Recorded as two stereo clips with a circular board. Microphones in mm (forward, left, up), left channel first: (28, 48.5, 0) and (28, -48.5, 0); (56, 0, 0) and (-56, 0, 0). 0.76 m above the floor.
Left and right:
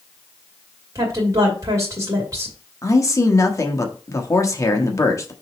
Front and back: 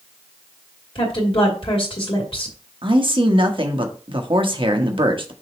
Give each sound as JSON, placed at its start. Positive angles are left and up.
{"t": 0.9, "sound": "a woman speaking", "azimuth_deg": -35, "distance_m": 2.5}
{"t": 2.8, "sound": "a man speaking", "azimuth_deg": 145, "distance_m": 1.0}